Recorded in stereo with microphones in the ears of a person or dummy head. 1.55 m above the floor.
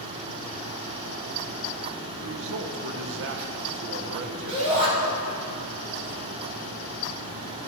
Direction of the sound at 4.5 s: 30° right (ahead or behind).